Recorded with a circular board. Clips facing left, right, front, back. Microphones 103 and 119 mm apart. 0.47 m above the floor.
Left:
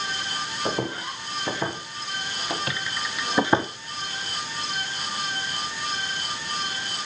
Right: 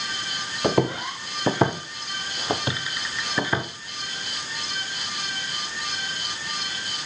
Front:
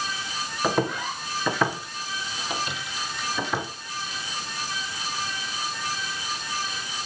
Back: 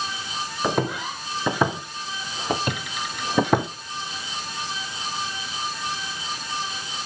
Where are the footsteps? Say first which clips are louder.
Right 7 dB, even; 95° right, 2.5 m; by 3.7 s 145° left, 1.3 m.